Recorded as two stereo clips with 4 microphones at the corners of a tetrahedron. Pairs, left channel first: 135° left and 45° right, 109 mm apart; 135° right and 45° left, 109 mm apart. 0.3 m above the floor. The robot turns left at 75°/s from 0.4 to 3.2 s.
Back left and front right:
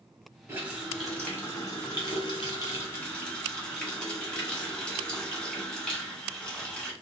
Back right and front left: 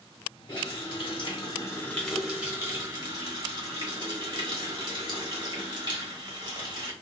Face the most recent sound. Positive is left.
turn(degrees=60)